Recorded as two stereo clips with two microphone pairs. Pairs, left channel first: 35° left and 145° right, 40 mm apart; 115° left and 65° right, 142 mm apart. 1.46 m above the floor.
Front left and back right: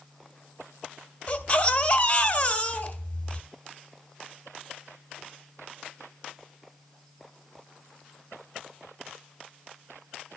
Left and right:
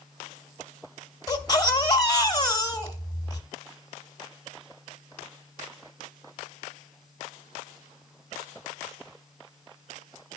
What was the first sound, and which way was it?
A baby crying, 75° left.